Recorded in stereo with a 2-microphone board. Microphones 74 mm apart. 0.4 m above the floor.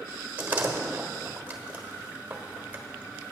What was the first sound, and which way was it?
A door slam, 20° right (ahead or behind).